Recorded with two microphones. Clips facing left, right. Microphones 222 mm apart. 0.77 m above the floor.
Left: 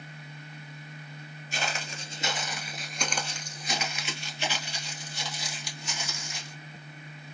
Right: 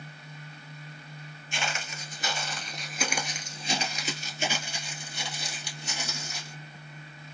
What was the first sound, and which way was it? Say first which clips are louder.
Footsteps: left 1 dB; 40° left (ahead or behind).